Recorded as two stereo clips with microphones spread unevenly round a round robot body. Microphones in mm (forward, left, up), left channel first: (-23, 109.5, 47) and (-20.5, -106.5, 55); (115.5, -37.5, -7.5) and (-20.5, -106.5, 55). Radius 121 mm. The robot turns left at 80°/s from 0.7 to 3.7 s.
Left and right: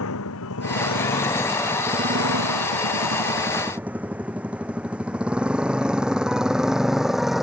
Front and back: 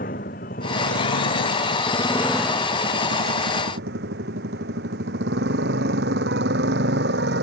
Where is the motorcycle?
70° left; by 7.4 s straight behind.